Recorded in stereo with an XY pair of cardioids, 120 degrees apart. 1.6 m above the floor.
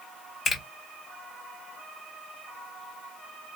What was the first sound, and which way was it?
A finger snap, 40° left.